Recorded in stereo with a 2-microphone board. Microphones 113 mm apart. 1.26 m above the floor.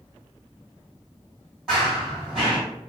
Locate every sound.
1.7 s running footsteps: 5° right (ahead or behind), 1.8 m